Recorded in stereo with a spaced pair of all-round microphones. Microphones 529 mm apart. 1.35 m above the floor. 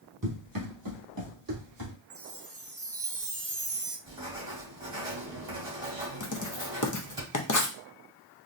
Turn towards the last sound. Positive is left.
turn(degrees=35)  # may be behind; listen again after turning